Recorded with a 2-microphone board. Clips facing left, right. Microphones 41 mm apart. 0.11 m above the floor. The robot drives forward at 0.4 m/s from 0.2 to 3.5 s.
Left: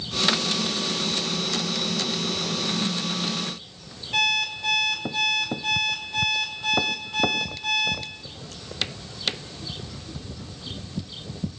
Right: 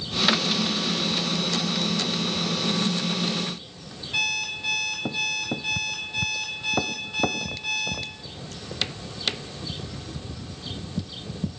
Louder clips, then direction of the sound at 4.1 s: Left 3 dB; 60° left (ahead or behind).